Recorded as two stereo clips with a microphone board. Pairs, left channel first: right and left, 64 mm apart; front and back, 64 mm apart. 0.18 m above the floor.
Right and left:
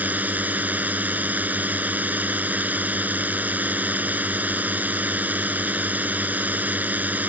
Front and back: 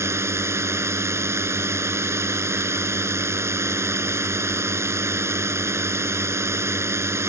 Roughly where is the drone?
Behind left.